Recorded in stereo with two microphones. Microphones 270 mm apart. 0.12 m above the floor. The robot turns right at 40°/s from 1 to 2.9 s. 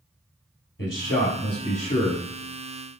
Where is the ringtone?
No ringtone in this recording.